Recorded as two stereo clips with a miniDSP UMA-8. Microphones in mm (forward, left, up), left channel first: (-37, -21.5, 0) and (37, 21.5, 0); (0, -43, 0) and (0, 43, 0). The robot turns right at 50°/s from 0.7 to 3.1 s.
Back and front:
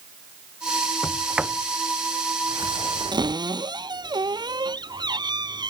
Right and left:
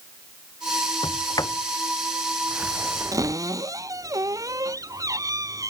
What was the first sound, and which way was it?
A sliding door, 65° right.